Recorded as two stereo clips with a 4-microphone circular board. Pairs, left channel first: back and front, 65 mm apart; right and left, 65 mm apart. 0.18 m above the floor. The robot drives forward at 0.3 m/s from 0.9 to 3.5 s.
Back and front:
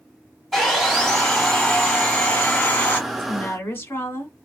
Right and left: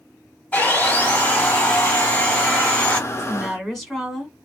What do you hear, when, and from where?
0.5 s sawing: 100° right, 1.6 m; by 3.0 s 135° right, 1.8 m
3.1 s a woman speaking: 175° right, 1.8 m